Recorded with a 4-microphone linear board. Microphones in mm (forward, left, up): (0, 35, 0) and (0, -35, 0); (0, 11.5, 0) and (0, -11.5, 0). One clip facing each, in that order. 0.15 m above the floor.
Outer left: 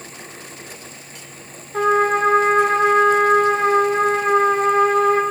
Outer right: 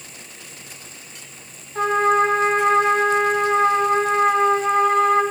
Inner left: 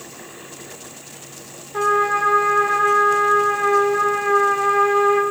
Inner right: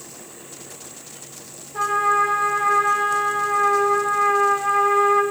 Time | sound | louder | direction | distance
1.7 | a trumpet | outer left 1 dB, inner left 1 dB | 65° left (ahead or behind) | 7.5 m